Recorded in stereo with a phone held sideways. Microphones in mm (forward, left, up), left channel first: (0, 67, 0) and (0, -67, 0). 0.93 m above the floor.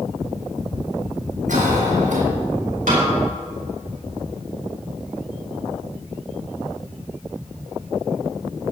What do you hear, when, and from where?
1.5 s a cough: 70° right (ahead or behind), 6.5 m
2.9 s a snare drum: 70° right (ahead or behind), 6 m